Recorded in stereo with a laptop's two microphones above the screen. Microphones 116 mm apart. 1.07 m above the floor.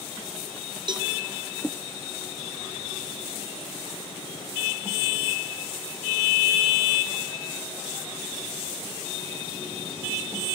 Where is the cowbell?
40° right (ahead or behind), 0.6 m.